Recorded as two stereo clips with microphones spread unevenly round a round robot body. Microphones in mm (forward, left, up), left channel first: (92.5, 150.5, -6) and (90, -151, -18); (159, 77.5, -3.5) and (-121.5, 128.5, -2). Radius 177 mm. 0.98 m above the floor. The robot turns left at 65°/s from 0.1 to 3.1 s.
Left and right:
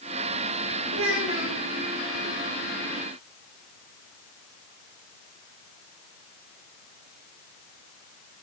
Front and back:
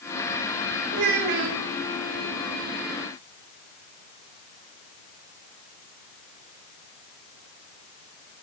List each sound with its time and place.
0.9 s a child speaking: 140° right, 1.7 m; by 1.6 s 175° left, 1.7 m